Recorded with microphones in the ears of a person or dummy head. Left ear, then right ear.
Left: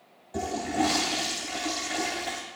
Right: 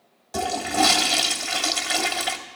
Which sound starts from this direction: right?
A toilet flushing, at 0.3 s.